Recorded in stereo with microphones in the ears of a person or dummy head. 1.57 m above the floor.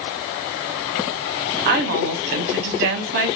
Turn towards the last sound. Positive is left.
turn(degrees=-40)  # may be behind; listen again after turning